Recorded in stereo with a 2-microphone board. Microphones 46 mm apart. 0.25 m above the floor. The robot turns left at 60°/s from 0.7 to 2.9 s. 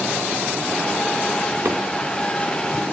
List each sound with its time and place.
1.6 s a microwave: 55° right (ahead or behind), 3 m; by 1.8 s 60° right (ahead or behind), 3 m